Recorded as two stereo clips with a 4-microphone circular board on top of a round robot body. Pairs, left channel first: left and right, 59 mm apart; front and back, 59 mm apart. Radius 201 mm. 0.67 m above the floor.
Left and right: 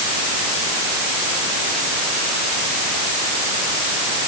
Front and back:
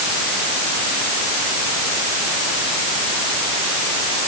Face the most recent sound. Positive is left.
No sound to turn to.